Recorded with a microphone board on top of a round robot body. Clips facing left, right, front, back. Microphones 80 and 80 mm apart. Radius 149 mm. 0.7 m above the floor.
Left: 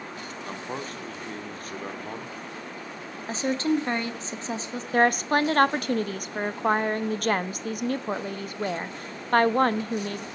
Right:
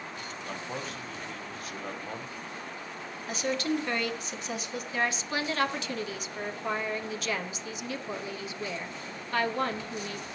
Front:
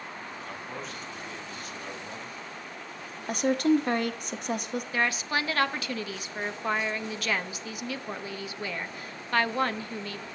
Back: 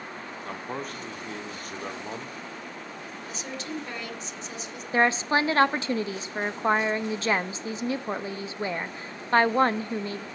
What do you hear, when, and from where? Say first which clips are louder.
0.4 s a man speaking: left 3 dB, back 7 dB; 140° left, 2 m
3.3 s a woman speaking: left 5 dB, front 14 dB; 30° left, 1.6 m
4.9 s a woman speaking: left 10 dB, back 7 dB; 125° left, 1.1 m